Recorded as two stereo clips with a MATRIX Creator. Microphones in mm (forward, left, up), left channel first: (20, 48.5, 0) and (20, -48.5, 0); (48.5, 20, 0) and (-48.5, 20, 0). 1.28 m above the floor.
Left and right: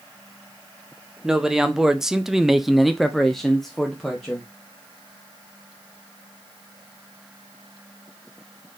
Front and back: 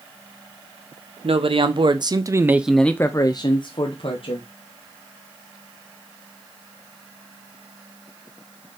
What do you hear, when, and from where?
1.2 s a man speaking: 170° right, 1.1 m; by 4.5 s 5° left, 1.2 m